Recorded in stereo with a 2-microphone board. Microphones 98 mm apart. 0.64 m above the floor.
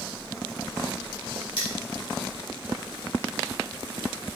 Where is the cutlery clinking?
60° left (ahead or behind), 1.6 m.